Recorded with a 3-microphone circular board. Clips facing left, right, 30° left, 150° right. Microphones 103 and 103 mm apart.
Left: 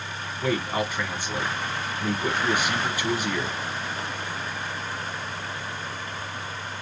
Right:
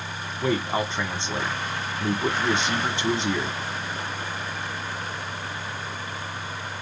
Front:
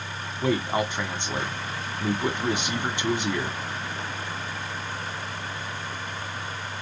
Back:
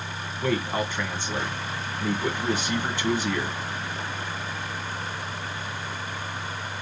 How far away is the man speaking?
About 1.8 m.